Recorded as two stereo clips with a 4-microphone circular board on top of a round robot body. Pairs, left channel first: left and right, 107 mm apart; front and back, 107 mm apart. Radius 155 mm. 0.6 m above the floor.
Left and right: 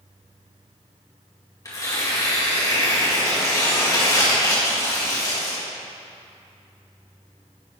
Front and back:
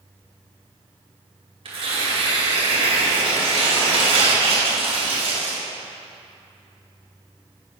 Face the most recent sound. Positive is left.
turn(degrees=150)